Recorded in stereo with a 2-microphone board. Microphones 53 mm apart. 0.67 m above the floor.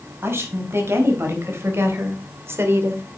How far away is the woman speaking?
About 4 m.